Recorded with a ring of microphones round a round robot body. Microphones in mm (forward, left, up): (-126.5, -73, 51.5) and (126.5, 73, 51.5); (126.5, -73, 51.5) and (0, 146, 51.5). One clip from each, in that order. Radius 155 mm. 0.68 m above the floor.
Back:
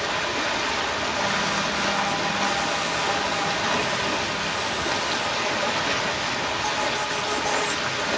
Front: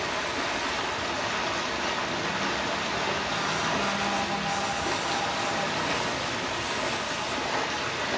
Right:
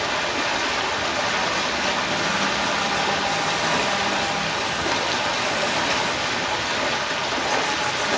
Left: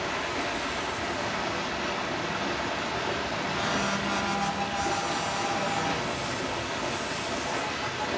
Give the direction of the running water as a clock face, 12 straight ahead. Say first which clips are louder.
Back 4 dB, right 7 dB; 3 o'clock.